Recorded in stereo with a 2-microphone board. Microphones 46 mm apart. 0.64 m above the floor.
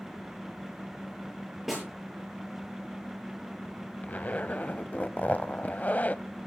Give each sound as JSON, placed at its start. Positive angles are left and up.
{"t": 1.7, "sound": "a snare drum", "side_deg": -5, "distance_m": 7.5}
{"t": 4.0, "sound": "a zipper", "side_deg": 40, "distance_m": 0.6}